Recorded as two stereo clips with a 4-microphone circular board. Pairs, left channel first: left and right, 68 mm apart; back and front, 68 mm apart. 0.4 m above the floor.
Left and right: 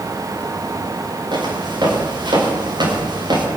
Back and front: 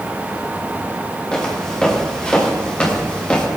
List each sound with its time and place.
1.3 s footsteps: 100° right, 10 m; by 3.5 s 105° right, 9 m